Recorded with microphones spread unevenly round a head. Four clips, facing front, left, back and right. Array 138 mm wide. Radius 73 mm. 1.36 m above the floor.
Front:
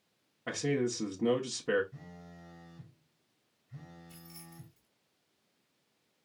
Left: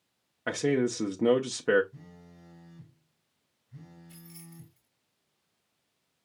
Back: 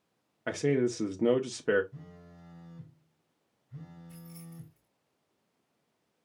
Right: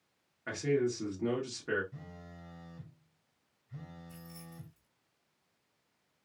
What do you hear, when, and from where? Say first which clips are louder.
0.5 s a man speaking: left 4 dB, back 4 dB; 135° left, 0.8 m
1.9 s a phone buzzing: right 2 dB, even; 55° right, 2.5 m
4.1 s keys jangling: even, back 5 dB; straight behind, 2.5 m